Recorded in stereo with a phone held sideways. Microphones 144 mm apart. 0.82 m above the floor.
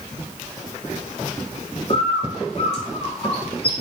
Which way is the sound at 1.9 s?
45° left (ahead or behind).